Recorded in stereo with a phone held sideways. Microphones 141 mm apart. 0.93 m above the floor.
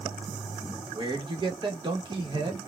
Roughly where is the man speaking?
Right.